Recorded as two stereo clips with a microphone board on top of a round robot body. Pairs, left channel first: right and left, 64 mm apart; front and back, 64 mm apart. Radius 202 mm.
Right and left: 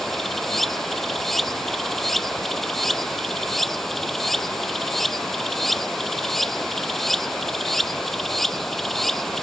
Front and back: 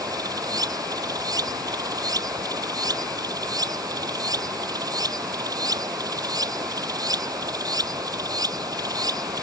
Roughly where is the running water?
Behind.